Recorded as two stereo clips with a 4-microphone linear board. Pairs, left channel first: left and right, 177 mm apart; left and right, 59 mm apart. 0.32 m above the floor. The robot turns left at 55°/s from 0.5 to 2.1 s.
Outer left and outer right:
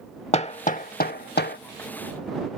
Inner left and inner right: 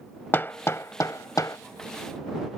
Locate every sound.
0.3 s hammering: 35° left (ahead or behind); by 1.6 s 60° left (ahead or behind)